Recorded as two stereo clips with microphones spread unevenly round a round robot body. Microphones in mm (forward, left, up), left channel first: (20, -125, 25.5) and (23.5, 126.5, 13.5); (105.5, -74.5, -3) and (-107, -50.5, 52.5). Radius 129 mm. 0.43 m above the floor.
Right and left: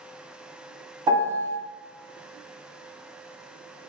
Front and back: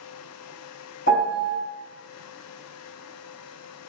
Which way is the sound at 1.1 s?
15° left.